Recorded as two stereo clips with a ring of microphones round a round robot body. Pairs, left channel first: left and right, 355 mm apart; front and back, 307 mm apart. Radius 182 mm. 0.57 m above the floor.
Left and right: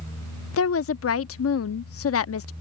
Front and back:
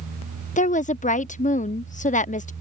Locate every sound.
0.6 s a woman speaking: 60° left